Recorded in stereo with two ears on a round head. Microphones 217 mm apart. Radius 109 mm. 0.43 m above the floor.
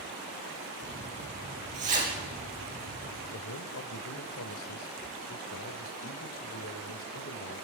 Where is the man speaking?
60° left (ahead or behind), 1.8 m.